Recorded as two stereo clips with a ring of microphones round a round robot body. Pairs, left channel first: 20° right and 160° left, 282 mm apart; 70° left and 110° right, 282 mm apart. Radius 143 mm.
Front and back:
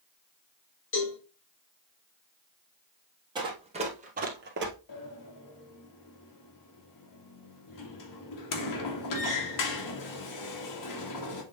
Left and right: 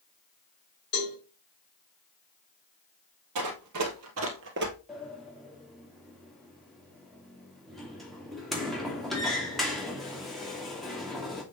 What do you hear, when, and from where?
0.9 s a cowbell: 25° left, 3.5 m
3.4 s running footsteps: 130° right, 2.0 m; by 4.8 s 165° right, 1.5 m
4.9 s a sliding door: 20° right, 2.0 m